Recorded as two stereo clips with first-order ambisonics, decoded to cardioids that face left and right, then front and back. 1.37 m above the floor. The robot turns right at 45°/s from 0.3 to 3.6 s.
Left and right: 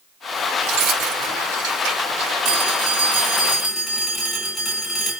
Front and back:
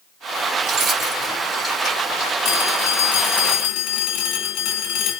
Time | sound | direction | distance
0.6 | keys jangling | 130° right | 4.5 m
2.5 | a phone ringing | 40° right | 2 m